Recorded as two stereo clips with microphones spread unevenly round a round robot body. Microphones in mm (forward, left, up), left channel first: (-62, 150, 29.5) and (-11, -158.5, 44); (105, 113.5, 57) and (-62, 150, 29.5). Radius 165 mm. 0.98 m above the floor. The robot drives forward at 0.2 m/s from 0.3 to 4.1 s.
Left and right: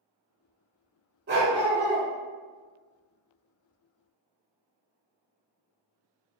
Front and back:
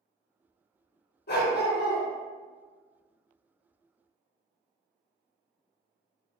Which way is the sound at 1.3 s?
25° right.